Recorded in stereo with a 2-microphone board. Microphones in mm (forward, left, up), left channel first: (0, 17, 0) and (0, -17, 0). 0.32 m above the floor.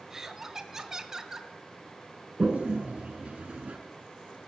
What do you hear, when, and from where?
0.1 s laughter: 15° right (ahead or behind), 1.2 m
2.4 s a toilet flushing: 45° right (ahead or behind), 1.6 m